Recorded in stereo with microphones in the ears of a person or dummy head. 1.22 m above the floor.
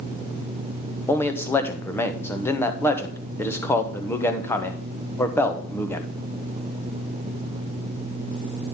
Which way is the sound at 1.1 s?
10° left (ahead or behind).